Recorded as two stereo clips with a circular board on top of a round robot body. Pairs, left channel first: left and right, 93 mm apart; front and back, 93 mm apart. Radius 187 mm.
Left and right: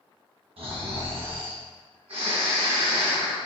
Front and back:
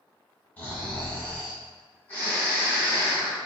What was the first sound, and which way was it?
Snoring, 75° right.